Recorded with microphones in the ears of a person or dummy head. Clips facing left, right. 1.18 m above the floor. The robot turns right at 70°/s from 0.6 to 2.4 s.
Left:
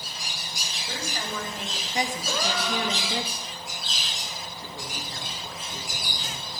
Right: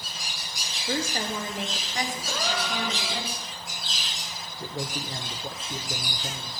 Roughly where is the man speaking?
Right.